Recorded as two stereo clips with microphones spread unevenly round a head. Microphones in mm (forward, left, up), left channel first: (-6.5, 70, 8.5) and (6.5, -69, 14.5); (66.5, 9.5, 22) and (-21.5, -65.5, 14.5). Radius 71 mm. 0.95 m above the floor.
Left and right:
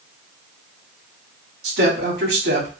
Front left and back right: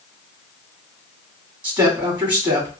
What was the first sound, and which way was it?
A woman speaking, 90° right.